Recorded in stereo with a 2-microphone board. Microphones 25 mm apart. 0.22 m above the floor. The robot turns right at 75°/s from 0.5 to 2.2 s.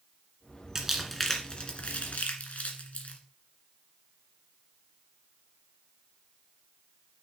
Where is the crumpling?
20° right (ahead or behind), 2 m; by 3.2 s 65° left (ahead or behind), 2 m.